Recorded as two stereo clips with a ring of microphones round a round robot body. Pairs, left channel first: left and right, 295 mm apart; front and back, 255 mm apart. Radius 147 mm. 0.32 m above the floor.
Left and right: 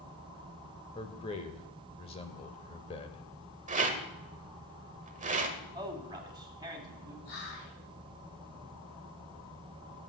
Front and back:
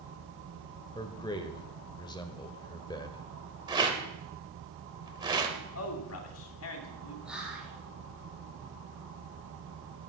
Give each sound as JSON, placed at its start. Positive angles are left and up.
{"t": 0.9, "sound": "a man speaking", "azimuth_deg": 45, "distance_m": 1.2}
{"t": 3.7, "sound": "a rattle", "azimuth_deg": -125, "distance_m": 1.2}
{"t": 5.8, "sound": "a man speaking", "azimuth_deg": -15, "distance_m": 2.5}
{"t": 7.2, "sound": "whispering", "azimuth_deg": 95, "distance_m": 4.5}